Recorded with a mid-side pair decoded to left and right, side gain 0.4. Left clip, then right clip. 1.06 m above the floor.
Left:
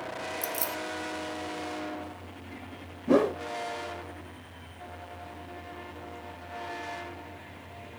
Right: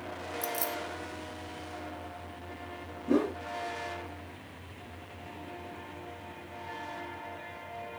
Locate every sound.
0.4 s keys jangling: 20° left, 0.5 m
3.1 s a whoosh: 70° left, 0.7 m